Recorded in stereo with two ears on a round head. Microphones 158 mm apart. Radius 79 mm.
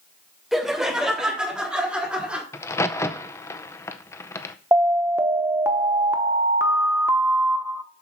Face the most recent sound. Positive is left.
turn(degrees=-15)  # may be behind; listen again after turning